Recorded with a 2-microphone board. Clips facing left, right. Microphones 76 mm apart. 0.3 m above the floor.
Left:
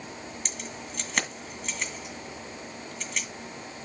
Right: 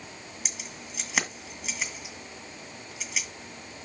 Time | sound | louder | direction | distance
0.5 | keys jangling | left 3 dB | 5° right (ahead or behind) | 1.8 m